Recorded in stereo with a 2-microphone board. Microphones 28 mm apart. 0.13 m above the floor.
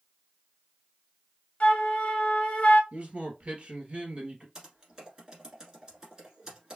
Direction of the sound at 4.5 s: 25° right (ahead or behind).